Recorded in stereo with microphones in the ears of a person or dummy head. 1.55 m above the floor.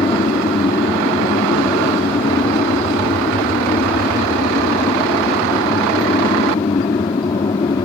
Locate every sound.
0.0 s an aircraft: 20° left (ahead or behind)